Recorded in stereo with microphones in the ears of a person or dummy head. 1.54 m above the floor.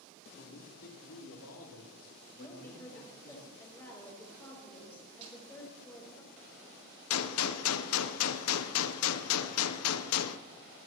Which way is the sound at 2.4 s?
15° left (ahead or behind).